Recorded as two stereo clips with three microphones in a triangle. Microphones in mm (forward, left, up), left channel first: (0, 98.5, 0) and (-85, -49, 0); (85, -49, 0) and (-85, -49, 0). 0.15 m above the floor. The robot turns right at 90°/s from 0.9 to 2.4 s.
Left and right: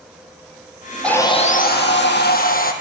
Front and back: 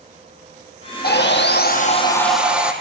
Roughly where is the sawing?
Ahead right.